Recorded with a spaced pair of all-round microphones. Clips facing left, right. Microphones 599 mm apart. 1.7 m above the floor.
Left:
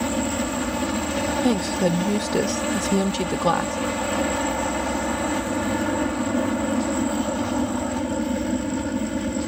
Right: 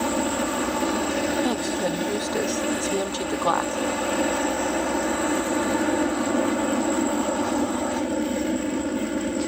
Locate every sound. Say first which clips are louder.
0.0 s a helicopter: even; 30° left (ahead or behind)
1.4 s a woman speaking: left 4 dB; 50° left (ahead or behind)